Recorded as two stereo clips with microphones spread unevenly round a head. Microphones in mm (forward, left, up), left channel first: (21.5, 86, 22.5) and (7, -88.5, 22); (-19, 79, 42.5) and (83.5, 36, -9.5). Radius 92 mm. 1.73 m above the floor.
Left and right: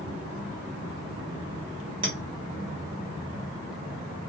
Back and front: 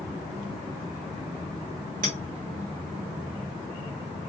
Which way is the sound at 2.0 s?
40° right.